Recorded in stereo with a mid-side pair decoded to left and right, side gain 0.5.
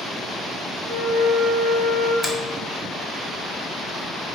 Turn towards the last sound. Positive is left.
turn(degrees=5)